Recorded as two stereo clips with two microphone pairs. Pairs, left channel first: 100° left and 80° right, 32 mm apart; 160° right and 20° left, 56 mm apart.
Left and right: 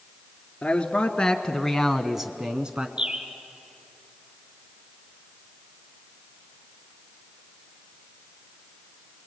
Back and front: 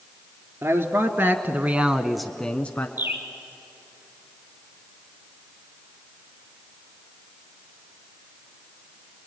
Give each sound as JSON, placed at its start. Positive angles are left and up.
{"t": 0.6, "sound": "a man speaking", "azimuth_deg": 40, "distance_m": 2.0}
{"t": 3.0, "sound": "a bird", "azimuth_deg": -25, "distance_m": 1.2}